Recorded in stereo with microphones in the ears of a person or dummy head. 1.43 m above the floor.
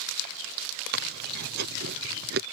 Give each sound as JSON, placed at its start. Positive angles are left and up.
{"t": 0.9, "sound": "chewing", "side_deg": -55}